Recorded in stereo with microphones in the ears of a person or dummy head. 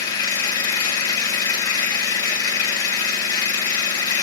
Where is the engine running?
20° left (ahead or behind), 1.1 m.